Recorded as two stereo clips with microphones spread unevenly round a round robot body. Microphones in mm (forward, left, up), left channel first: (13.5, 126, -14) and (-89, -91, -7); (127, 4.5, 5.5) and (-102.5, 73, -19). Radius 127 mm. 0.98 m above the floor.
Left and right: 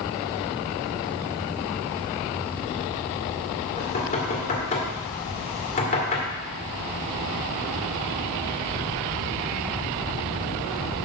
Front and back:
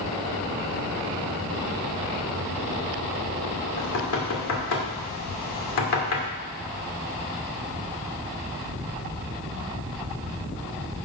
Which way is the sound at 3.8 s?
Straight ahead.